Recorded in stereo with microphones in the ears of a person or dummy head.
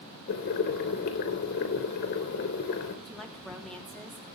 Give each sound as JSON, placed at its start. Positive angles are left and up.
{"t": 0.3, "sound": "boiling", "side_deg": 60, "distance_m": 3.0}
{"t": 3.0, "sound": "a woman speaking", "side_deg": 5, "distance_m": 3.0}